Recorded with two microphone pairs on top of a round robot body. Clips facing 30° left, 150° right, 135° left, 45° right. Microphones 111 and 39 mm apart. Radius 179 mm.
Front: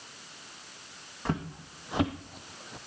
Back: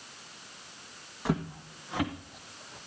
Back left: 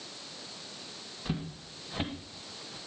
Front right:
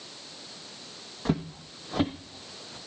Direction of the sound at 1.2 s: 65° right.